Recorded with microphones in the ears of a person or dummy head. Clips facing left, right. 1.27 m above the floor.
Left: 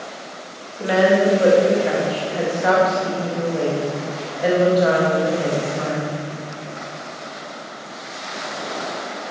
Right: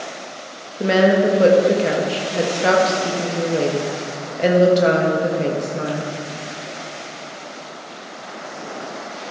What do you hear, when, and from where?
0.8 s a woman speaking: 40° right (ahead or behind), 1.2 m